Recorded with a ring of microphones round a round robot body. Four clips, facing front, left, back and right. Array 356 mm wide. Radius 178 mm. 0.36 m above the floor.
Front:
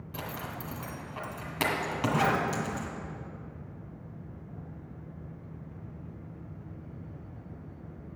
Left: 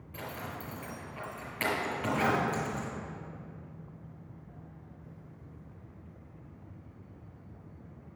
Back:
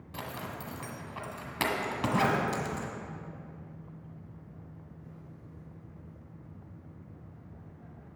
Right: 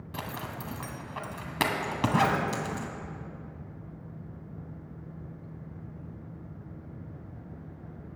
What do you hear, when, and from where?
0.1 s a zipper: 95° right, 1.7 m